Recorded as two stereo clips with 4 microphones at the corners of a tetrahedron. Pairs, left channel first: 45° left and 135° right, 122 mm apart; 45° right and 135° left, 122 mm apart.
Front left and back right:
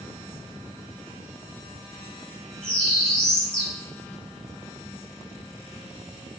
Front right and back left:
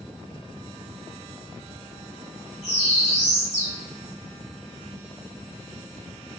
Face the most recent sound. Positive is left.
turn(degrees=-35)